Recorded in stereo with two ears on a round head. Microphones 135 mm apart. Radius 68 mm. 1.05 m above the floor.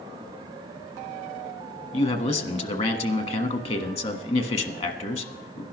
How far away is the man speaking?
About 1.3 m.